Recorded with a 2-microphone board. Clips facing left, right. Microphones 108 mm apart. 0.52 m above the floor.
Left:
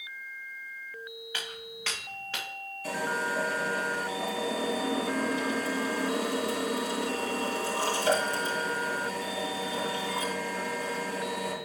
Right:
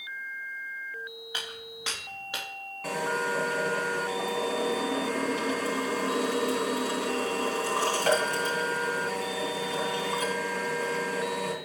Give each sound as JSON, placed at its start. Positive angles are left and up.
{"t": 1.3, "sound": "footsteps", "side_deg": -20, "distance_m": 4.0}
{"t": 2.8, "sound": "a drill", "side_deg": -75, "distance_m": 3.0}